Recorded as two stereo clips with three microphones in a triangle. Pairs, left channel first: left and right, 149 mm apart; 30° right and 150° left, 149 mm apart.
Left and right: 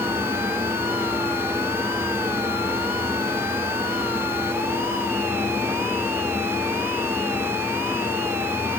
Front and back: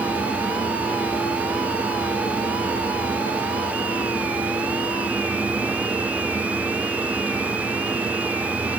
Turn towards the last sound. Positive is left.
No sound to turn to.